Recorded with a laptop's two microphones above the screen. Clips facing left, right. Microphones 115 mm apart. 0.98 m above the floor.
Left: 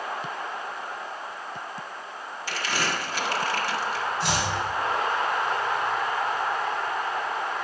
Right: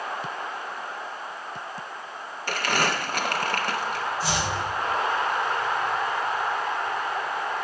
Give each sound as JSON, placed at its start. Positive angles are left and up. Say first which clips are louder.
{"t": 2.5, "sound": "crumpling", "louder": "right 4 dB", "side_deg": -55, "distance_m": 0.8}
{"t": 4.2, "sound": "chopping", "louder": "left 1 dB", "side_deg": 80, "distance_m": 3.0}